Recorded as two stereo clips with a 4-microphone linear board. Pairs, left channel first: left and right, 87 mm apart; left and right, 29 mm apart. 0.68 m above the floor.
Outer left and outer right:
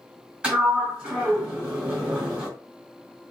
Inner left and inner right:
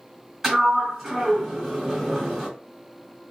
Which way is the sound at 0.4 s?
10° right (ahead or behind).